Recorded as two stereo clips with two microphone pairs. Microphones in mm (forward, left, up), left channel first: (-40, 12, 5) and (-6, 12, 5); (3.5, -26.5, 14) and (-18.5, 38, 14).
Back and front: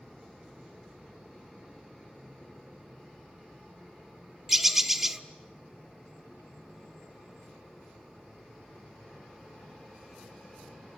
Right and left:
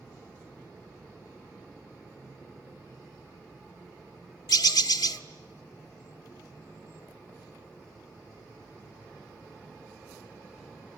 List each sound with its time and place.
4.5 s a bird: 85° right, 1.1 m